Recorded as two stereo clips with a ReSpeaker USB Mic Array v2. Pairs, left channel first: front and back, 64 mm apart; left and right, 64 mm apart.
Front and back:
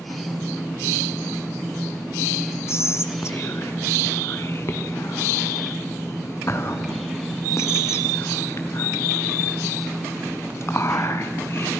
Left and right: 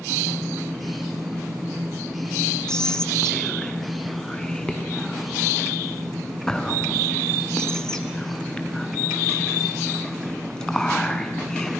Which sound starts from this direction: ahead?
Whispering, at 2.7 s.